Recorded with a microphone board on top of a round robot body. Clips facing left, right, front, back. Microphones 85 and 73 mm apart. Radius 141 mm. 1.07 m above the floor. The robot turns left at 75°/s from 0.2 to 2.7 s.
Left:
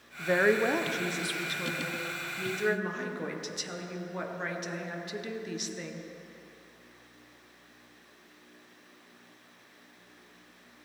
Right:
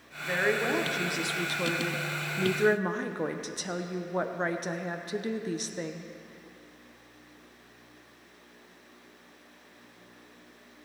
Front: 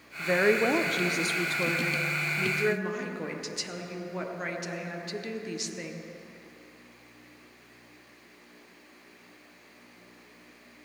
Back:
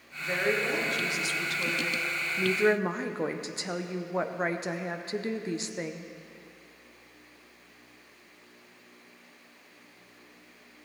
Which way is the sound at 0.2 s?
55° left.